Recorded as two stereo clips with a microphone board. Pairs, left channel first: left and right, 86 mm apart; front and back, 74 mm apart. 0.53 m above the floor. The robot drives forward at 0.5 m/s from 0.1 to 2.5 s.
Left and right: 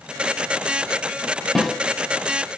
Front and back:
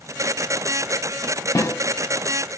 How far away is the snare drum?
About 1.1 m.